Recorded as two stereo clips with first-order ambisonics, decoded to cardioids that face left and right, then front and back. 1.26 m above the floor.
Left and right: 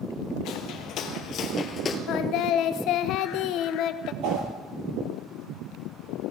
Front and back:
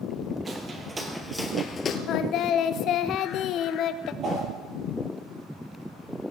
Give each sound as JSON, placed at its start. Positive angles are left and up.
{"t": 0.5, "sound": "footsteps", "azimuth_deg": 120, "distance_m": 2.0}
{"t": 2.1, "sound": "singing", "azimuth_deg": 50, "distance_m": 0.8}
{"t": 4.2, "sound": "a whoosh", "azimuth_deg": -120, "distance_m": 4.5}